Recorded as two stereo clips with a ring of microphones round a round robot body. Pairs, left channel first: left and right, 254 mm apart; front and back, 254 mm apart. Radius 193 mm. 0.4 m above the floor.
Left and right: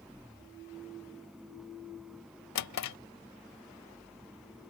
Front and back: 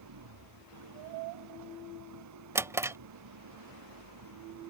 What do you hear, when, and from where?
0.0 s an engine running: straight behind
2.5 s a drawer: 100° left